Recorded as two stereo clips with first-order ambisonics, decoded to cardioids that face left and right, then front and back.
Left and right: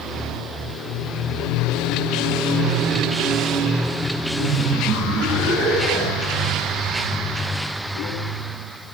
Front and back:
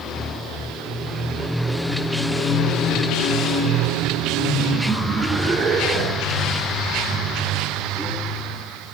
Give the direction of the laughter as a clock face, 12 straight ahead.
2 o'clock.